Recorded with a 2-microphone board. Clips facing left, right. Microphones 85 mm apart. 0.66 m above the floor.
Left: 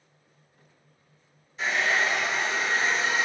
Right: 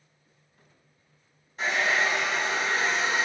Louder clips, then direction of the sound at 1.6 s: Even; 45° right (ahead or behind).